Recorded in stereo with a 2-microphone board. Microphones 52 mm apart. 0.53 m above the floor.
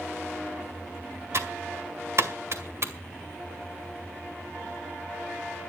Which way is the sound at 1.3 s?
55° right (ahead or behind).